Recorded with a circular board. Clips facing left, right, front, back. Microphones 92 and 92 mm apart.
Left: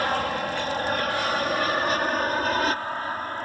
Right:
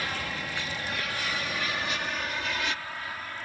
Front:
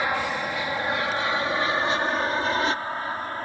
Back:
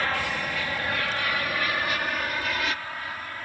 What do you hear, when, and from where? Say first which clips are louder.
0.0 s an aircraft: left 9 dB, front 2 dB; 70° left; by 3.5 s 50° left